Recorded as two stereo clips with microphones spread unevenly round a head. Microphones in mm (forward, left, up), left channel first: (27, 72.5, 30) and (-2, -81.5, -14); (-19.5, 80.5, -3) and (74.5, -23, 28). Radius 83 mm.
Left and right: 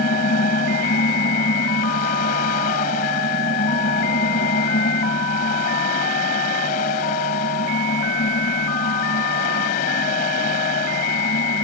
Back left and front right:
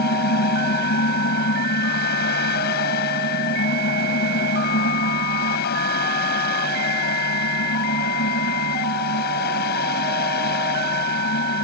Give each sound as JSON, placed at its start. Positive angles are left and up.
{"t": 0.0, "sound": "a fan", "azimuth_deg": 125}